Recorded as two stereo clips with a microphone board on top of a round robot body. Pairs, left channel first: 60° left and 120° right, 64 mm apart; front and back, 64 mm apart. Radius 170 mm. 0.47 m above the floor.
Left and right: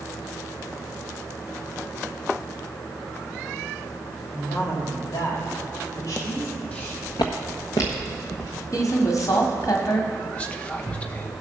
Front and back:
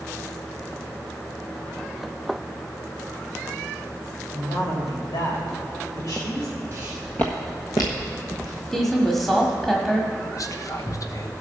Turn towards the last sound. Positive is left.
turn(degrees=-5)